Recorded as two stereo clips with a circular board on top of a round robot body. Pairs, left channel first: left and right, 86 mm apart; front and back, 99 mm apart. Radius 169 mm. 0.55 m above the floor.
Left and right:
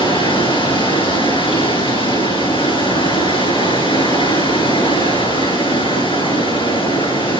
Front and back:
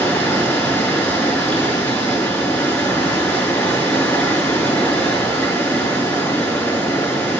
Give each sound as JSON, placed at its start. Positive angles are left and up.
{"t": 0.0, "sound": "running water", "azimuth_deg": 80, "distance_m": 6.5}